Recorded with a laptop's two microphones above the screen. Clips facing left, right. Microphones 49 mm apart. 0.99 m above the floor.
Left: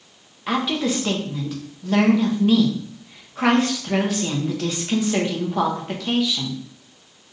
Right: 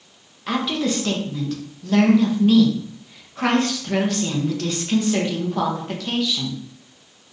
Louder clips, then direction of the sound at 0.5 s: Even; 10° left (ahead or behind).